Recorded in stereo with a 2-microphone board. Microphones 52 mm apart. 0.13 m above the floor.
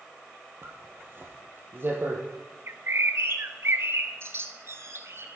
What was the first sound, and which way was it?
A zipper, 45° right (ahead or behind).